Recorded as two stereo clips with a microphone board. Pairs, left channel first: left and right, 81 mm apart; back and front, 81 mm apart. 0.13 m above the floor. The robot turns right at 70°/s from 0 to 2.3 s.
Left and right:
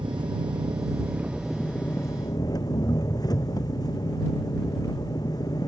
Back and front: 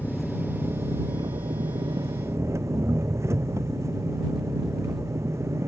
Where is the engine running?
105° right; by 5.7 s 55° left.